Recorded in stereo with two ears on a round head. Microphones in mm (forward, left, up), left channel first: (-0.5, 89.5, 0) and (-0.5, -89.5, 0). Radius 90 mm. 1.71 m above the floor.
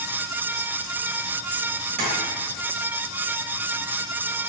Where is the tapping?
45° right (ahead or behind), 3 m.